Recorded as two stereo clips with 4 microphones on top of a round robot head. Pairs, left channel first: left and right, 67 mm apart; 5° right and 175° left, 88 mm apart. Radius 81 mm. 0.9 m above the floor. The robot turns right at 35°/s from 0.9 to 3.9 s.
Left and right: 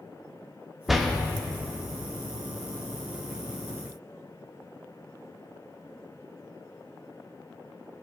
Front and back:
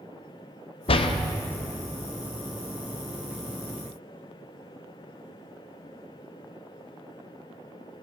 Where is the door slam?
Straight ahead, 0.9 m; by 1.1 s 5° left, 0.9 m.